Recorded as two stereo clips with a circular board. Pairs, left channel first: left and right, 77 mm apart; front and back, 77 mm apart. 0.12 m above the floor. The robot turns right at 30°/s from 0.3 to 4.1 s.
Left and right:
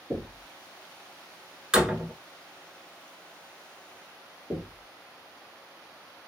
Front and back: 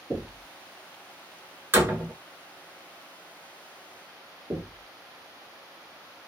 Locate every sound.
0.1 s knocking: 85° right, 1.6 m
1.7 s a door slam: 165° right, 0.8 m; by 2.1 s 150° right, 0.8 m
4.5 s knocking: 155° right, 0.9 m